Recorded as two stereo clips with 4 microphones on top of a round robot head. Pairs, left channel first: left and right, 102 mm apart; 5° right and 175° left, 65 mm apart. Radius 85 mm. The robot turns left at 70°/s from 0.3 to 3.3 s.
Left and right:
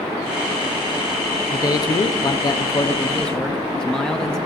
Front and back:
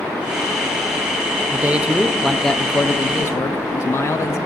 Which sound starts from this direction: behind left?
A man speaking, at 1.5 s.